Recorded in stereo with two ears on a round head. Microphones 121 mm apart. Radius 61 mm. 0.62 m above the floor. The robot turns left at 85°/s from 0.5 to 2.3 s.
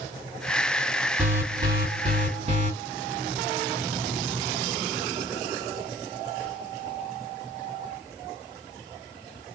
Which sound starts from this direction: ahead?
An alarm, at 1.2 s.